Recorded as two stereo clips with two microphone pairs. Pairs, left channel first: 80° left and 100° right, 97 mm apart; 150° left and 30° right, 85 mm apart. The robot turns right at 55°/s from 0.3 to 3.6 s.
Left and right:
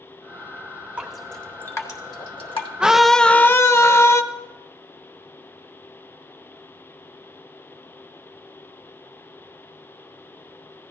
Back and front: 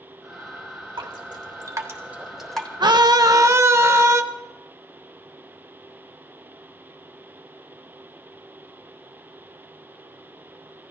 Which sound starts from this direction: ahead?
A scream, at 2.8 s.